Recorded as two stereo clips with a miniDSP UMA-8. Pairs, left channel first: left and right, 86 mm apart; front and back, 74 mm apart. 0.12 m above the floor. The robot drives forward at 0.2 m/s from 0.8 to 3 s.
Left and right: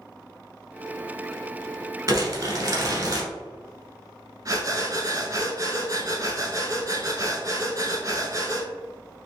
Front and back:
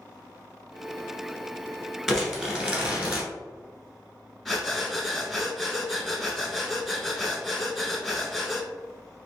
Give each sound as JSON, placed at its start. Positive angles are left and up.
{"t": 2.1, "sound": "crumpling", "azimuth_deg": -100, "distance_m": 1.0}
{"t": 4.5, "sound": "breathing", "azimuth_deg": -90, "distance_m": 0.7}